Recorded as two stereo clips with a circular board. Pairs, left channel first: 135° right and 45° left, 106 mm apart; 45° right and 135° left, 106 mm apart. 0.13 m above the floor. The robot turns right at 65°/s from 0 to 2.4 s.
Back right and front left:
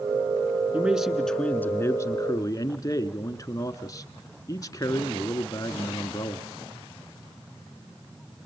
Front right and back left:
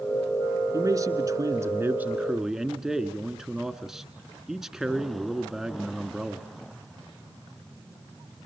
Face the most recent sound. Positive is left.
turn(degrees=-140)